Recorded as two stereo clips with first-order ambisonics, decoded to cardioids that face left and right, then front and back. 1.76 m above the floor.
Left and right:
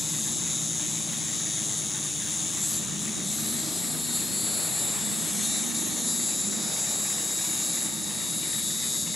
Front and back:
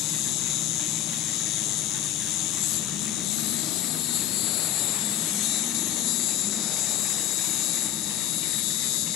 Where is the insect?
10° left.